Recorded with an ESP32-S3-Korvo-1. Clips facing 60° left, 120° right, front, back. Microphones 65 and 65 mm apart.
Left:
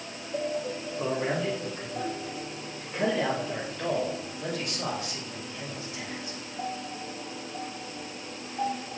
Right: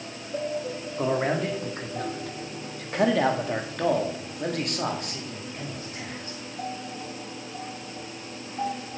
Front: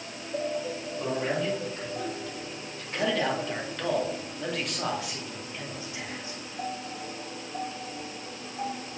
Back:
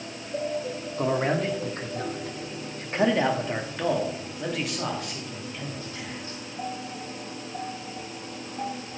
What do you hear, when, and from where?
1.0 s a man speaking: 155° right, 2.5 m; by 6.4 s 75° right, 3 m